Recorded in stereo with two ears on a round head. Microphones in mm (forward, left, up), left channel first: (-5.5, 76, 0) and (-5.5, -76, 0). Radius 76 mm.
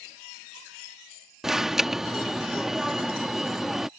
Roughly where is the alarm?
Centre.